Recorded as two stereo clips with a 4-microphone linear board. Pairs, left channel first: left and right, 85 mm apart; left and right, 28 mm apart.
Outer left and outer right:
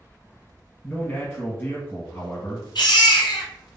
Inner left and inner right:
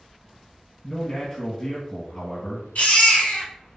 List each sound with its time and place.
0.8 s a man speaking: 25° left (ahead or behind), 1.9 m
2.8 s a baby crying: 60° left (ahead or behind), 1.2 m